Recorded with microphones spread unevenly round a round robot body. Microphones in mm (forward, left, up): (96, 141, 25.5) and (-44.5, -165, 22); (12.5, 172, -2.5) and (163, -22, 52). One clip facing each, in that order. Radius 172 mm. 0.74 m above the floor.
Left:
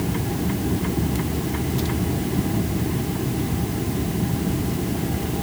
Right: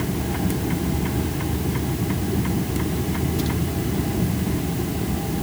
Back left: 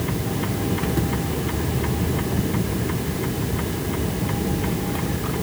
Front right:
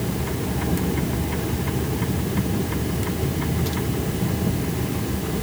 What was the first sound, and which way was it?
Only background noise.